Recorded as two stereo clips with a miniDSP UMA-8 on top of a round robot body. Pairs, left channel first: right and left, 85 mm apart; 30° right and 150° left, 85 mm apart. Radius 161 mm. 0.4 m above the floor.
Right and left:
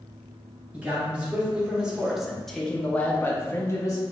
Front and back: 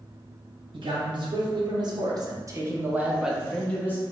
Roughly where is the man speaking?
Behind.